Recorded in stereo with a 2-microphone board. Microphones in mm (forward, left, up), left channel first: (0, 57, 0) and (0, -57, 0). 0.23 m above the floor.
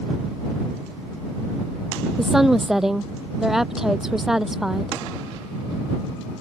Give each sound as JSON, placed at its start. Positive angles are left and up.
{"t": 2.2, "sound": "a woman speaking", "side_deg": -5}